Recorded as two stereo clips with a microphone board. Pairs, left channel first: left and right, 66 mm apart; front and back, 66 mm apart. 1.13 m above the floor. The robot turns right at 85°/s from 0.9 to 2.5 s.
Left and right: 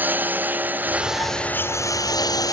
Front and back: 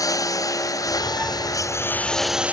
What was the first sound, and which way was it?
A lawn mower, 25° right.